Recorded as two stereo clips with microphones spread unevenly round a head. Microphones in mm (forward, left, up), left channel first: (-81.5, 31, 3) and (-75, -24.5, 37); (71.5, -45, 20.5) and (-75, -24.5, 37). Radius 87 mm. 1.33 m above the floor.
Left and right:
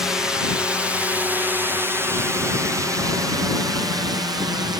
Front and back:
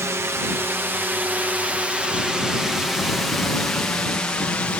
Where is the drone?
110° left; by 4.8 s 80° right.